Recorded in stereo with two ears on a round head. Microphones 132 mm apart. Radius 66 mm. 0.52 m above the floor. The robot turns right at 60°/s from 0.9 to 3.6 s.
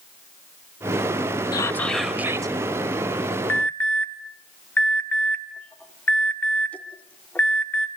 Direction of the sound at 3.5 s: 15° left (ahead or behind).